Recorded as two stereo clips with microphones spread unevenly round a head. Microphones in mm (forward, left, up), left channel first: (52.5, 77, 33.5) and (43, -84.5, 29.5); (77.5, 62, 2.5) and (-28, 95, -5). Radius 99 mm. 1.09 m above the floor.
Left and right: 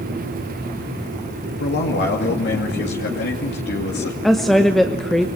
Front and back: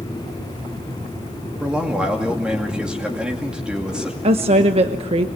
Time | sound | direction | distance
1.6 | a man speaking | 80° left | 2.5 m
4.2 | a woman speaking | 175° left | 0.9 m